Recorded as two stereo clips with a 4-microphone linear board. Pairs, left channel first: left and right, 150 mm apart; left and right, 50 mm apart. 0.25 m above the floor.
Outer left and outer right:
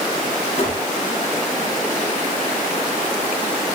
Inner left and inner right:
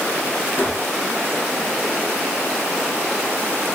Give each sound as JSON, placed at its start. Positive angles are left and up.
{"t": 0.6, "sound": "a gunshot", "side_deg": 40, "distance_m": 8.5}